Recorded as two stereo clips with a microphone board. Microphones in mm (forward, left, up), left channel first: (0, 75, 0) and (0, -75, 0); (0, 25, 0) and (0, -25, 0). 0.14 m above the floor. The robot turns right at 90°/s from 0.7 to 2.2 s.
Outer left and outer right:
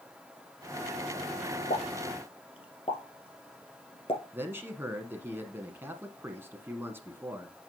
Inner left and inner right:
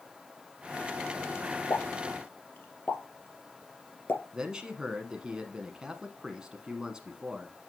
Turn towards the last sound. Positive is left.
turn(degrees=-15)  # may be behind; listen again after turning